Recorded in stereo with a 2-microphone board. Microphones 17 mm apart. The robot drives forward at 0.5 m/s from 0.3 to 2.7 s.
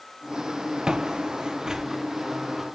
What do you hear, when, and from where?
0.9 s footsteps: 60° right (ahead or behind), 0.7 m; by 2.6 s 15° right (ahead or behind), 1.5 m